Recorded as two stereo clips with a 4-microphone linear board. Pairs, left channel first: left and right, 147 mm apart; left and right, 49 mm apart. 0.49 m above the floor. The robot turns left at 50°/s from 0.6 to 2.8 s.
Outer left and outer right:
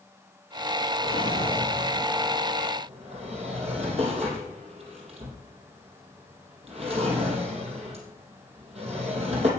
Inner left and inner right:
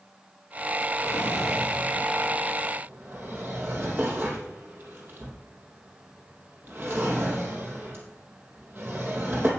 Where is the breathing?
No breathing in this recording.